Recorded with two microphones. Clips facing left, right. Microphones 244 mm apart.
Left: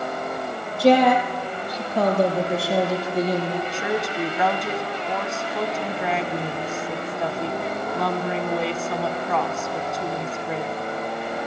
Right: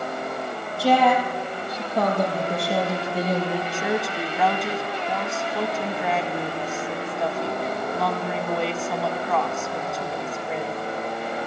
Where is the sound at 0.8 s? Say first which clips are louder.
Left 4 dB; 20° left (ahead or behind), 6 m; by 3.6 s 5° right (ahead or behind), 5.5 m.